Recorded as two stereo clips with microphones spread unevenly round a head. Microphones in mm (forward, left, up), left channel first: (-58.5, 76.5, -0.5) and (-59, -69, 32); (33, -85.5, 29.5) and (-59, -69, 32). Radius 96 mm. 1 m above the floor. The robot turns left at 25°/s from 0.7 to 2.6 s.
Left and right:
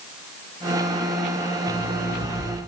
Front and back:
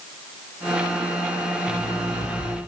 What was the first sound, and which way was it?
An alarm clock, 100° right.